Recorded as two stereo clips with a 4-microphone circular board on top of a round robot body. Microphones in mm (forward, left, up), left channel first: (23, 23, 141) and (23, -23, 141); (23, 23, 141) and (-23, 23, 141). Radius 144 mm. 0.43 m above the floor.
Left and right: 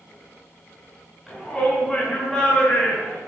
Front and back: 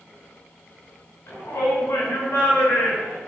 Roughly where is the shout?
Ahead.